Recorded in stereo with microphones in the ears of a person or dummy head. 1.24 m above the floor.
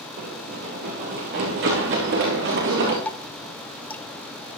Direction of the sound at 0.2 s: 50° right (ahead or behind).